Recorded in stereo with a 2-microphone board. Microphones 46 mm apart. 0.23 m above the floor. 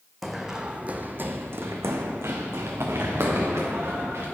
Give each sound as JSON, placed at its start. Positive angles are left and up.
{"t": 0.2, "sound": "running footsteps", "side_deg": 0, "distance_m": 0.8}